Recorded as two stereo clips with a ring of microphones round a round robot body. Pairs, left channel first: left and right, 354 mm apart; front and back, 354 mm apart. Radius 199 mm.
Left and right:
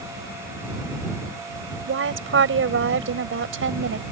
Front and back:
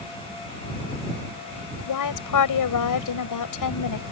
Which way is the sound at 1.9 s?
35° right.